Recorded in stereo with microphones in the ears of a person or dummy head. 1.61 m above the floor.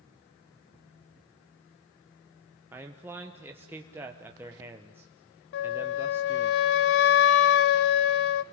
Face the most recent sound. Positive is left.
turn(degrees=60)  # may be behind; listen again after turning